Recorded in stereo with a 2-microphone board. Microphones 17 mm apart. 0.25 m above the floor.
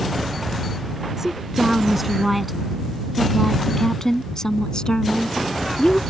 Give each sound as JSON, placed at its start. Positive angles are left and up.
{"t": 1.2, "sound": "a woman speaking", "side_deg": -20}